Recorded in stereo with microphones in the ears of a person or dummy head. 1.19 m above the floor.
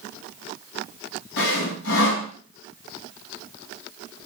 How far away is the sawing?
About 3 m.